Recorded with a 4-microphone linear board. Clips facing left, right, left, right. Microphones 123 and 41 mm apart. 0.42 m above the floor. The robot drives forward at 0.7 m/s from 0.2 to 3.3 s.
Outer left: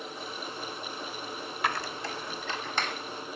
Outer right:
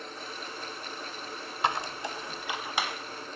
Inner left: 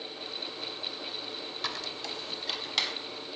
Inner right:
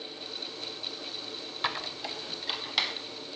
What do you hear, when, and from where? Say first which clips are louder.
1.6 s a squeak: outer right 2 dB, inner right 5 dB; 25° right (ahead or behind), 0.5 m; by 2.9 s 10° right (ahead or behind), 1.4 m